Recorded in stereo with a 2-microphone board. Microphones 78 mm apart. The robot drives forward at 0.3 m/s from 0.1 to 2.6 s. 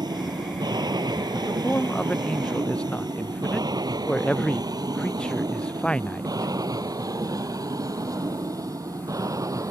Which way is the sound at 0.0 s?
65° right (ahead or behind).